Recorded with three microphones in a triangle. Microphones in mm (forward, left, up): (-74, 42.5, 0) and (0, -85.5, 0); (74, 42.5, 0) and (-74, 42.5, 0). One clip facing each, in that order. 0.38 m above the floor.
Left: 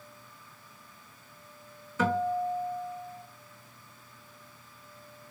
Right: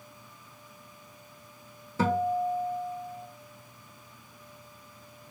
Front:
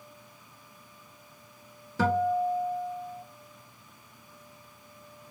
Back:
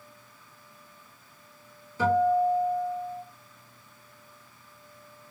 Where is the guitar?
5° right, 0.8 m.